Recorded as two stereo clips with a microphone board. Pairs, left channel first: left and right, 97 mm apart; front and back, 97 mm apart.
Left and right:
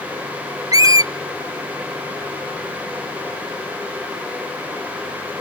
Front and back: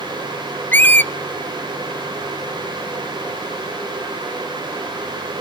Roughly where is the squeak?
Ahead right.